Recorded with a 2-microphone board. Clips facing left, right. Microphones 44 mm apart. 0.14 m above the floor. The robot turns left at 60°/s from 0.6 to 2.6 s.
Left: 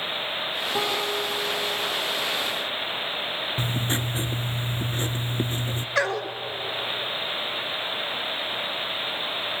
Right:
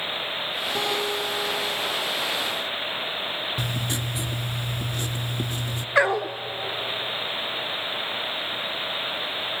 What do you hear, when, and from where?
0.8 s a guitar: 165° left, 6 m; by 1.9 s 95° left, 6 m
3.6 s writing: 30° left (ahead or behind), 0.7 m
6.0 s a dog barking: 20° right (ahead or behind), 0.7 m